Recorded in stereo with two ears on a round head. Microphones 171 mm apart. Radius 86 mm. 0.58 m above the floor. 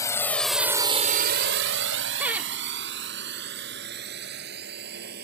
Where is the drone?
20° left (ahead or behind); by 5.2 s 55° right (ahead or behind).